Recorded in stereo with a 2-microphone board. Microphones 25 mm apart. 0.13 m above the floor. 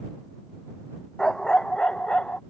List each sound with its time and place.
1.2 s a dog barking: 20° left (ahead or behind); by 2.4 s 45° left (ahead or behind)